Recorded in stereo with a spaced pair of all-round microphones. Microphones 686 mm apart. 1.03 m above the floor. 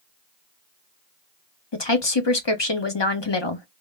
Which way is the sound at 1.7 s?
40° left (ahead or behind).